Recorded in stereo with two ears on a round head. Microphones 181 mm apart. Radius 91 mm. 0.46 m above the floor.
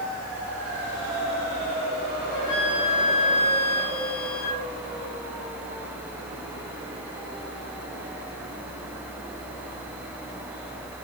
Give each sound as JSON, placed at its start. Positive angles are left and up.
{"t": 2.3, "sound": "a flute", "side_deg": 80, "distance_m": 5.5}